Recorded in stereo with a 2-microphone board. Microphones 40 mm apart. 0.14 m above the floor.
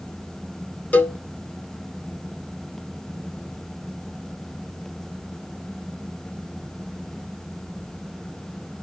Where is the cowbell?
45° left (ahead or behind), 0.7 m.